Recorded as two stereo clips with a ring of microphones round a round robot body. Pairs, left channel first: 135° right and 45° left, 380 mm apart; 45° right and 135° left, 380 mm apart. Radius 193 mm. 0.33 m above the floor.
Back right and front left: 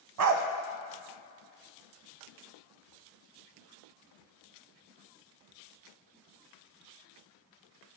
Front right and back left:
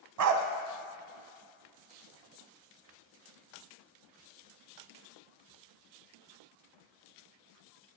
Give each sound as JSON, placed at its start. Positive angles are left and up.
{"t": 0.2, "sound": "a dog barking", "azimuth_deg": 90, "distance_m": 0.8}